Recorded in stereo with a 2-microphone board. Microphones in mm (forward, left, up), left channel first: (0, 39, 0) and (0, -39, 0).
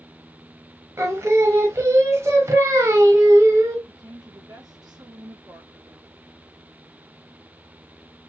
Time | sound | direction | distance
1.0 | singing | 35° right (ahead or behind) | 0.7 m
3.9 | a woman speaking | 55° right (ahead or behind) | 1.3 m